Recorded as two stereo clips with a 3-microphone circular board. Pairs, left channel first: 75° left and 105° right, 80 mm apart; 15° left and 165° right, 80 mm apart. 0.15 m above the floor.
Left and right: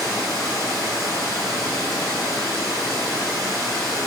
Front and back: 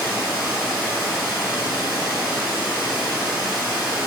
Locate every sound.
0.0 s running water: 110° right, 1.4 m